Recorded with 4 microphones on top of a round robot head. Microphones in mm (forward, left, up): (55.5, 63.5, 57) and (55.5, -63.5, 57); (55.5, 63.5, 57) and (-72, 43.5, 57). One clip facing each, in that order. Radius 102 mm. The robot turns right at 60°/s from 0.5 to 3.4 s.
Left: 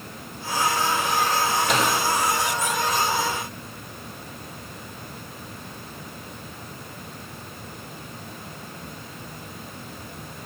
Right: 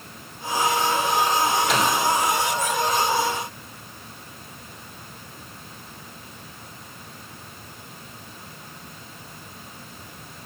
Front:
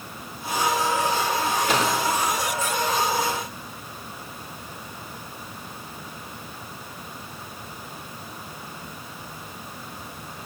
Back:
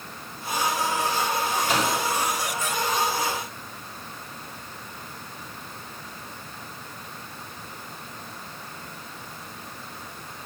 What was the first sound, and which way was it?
A microwave, straight ahead.